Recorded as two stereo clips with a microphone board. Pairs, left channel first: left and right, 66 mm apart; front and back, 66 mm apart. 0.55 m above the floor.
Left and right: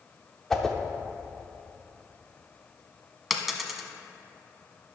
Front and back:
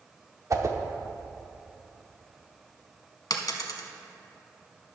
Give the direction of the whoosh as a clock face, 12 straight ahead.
6 o'clock.